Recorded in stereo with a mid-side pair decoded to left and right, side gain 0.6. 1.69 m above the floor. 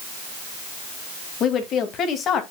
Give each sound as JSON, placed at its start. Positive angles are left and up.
{"t": 1.4, "sound": "a woman speaking", "azimuth_deg": 50, "distance_m": 2.5}